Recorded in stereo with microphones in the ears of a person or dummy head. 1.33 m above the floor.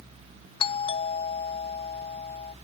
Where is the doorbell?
20° left (ahead or behind), 0.6 m.